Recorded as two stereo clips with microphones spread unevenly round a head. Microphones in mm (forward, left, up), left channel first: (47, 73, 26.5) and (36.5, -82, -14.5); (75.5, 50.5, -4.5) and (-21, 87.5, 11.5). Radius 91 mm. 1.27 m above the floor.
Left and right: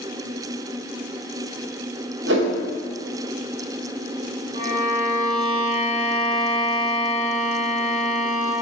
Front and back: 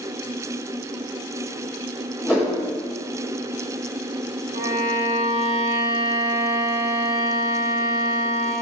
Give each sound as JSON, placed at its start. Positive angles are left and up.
{"t": 2.2, "sound": "a whoosh", "azimuth_deg": -105, "distance_m": 4.5}
{"t": 4.5, "sound": "a violin", "azimuth_deg": -165, "distance_m": 3.0}